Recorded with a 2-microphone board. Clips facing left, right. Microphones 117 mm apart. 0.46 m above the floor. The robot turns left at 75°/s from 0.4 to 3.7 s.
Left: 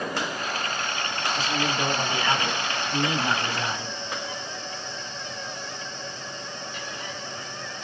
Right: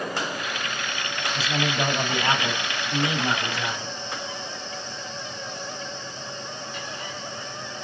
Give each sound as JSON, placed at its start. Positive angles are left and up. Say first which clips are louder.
{"t": 1.4, "sound": "a man speaking", "louder": "right 2 dB", "azimuth_deg": -40, "distance_m": 2.5}